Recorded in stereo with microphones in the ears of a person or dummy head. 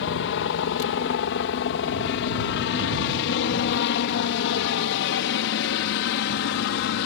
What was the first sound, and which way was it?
A helicopter, 60° left (ahead or behind).